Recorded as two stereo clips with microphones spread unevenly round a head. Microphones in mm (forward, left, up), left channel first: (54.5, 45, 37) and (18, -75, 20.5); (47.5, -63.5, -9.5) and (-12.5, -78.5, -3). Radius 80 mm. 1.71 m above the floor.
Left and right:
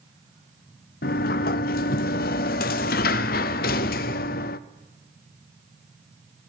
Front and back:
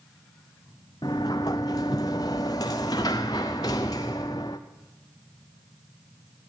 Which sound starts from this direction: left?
A sliding door, at 1.0 s.